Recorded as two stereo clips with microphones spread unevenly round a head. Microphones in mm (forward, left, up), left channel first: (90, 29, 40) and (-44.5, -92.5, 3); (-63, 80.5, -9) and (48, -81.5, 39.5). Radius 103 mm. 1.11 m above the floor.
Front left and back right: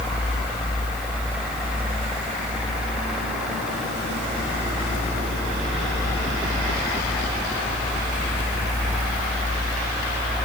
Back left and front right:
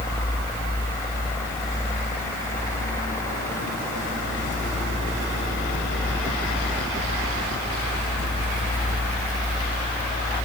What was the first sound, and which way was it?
Only background noise.